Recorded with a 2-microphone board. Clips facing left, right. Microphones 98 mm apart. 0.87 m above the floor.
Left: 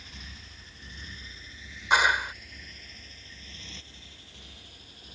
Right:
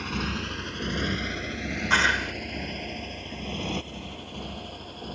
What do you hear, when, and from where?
0.0 s a motorcycle: 80° right; by 5.2 s 60° right (ahead or behind)
1.9 s a clap: 15° left (ahead or behind)